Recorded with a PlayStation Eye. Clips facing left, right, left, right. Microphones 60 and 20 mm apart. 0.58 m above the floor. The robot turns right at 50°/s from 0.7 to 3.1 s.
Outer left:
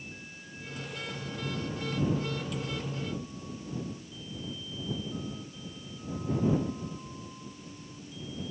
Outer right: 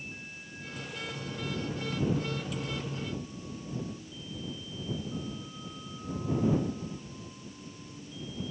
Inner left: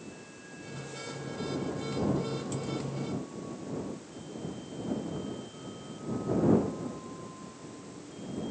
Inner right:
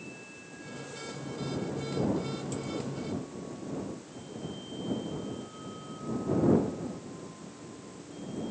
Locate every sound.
Only background noise.